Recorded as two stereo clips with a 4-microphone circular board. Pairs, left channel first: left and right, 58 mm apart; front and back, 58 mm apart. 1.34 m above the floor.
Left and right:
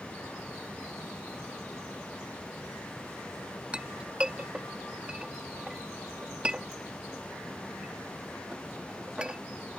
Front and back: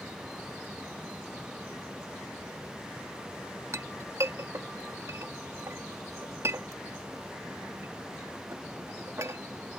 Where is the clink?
160° right.